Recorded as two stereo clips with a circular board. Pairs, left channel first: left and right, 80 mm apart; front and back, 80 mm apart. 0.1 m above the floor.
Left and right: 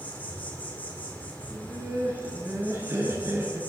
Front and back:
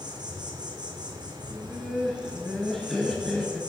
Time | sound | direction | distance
0.0 | an insect | 160° left | 1.7 m
1.5 | laughter | 80° right | 1.2 m